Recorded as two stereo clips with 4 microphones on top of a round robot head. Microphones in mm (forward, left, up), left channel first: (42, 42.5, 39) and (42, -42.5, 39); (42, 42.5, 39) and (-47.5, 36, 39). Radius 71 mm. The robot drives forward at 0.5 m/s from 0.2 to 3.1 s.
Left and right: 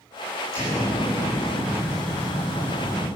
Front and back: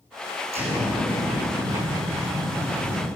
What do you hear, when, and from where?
0.5 s an explosion: 160° right, 6 m